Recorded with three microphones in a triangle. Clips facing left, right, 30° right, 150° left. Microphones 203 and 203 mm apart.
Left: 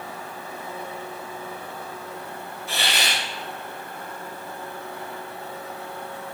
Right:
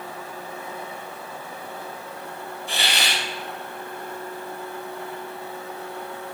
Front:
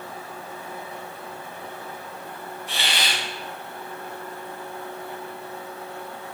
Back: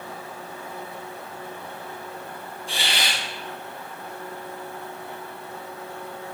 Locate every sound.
2.7 s a hiss: 150° right, 3.5 m